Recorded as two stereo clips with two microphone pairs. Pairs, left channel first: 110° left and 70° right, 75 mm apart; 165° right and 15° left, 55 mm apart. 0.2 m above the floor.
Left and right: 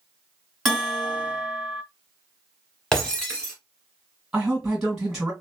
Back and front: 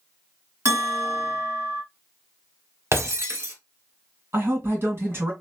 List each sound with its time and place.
0.7 s a bell: 15° left, 2.0 m
2.9 s breaking glass: 30° left, 1.3 m
4.3 s a man speaking: 10° left, 1.8 m